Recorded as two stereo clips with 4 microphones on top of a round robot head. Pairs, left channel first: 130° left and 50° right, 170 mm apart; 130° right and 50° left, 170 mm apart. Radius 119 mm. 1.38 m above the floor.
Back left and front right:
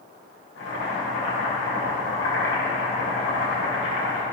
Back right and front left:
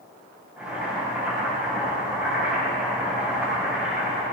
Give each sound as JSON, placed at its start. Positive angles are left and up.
{"t": 0.6, "sound": "boiling", "azimuth_deg": 135, "distance_m": 4.5}